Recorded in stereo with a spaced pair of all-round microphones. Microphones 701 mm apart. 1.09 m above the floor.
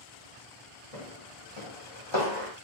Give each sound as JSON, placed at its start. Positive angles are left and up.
{"t": 0.9, "sound": "footsteps", "side_deg": 50, "distance_m": 3.5}